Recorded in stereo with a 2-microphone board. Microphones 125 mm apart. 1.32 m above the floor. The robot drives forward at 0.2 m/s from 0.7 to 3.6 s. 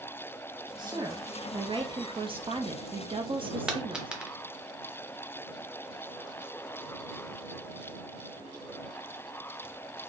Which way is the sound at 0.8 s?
35° right (ahead or behind).